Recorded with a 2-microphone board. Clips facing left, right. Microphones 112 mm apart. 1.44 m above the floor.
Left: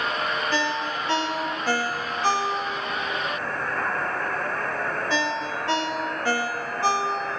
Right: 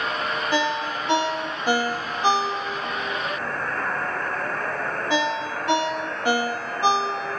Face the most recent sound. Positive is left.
turn(degrees=-15)  # may be behind; listen again after turning